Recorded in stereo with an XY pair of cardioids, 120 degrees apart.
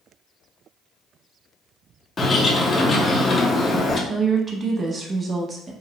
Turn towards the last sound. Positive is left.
turn(degrees=-30)